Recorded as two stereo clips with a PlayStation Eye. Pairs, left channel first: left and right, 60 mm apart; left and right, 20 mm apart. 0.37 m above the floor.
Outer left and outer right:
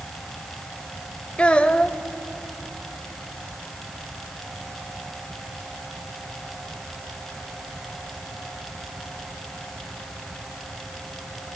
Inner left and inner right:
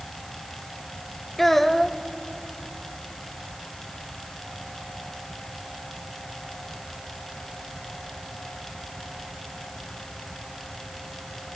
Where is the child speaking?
20° left (ahead or behind), 0.9 m.